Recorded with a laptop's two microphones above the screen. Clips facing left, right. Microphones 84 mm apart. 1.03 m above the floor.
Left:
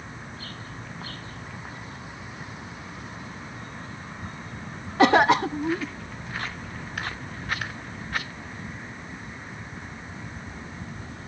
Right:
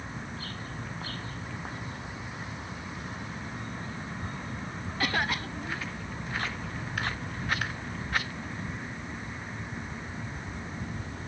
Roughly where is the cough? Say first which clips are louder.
Left 13 dB; left.